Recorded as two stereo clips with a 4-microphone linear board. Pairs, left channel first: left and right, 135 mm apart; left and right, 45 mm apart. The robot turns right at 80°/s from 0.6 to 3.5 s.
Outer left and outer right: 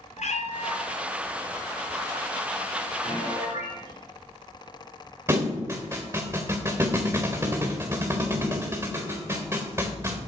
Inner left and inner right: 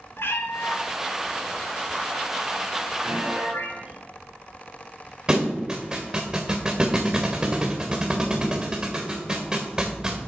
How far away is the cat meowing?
About 1.3 m.